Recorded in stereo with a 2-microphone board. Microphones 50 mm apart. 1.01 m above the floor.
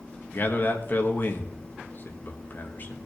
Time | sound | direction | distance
0.3 | a man speaking | 45° left (ahead or behind) | 1.6 m